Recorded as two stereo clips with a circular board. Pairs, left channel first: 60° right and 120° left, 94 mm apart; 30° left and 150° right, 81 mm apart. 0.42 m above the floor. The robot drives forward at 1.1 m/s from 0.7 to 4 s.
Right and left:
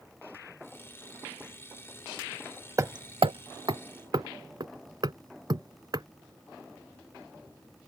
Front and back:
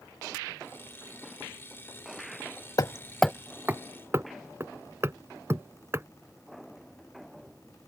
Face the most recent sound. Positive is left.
turn(degrees=155)